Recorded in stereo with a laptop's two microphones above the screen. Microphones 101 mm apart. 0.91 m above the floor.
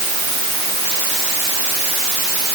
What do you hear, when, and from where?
Only background noise.